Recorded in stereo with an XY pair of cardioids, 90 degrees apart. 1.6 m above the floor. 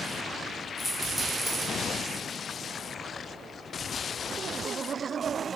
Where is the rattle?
15° left, 0.7 m.